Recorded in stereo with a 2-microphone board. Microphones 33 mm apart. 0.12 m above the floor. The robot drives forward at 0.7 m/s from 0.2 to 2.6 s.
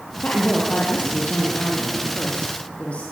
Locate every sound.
0.2 s a woman speaking: 55° left (ahead or behind), 4 m; by 3.0 s 40° left (ahead or behind), 5 m